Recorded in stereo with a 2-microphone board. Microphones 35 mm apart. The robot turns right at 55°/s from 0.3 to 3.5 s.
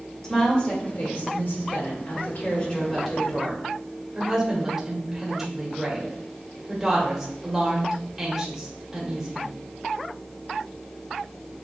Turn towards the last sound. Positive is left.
turn(degrees=-175)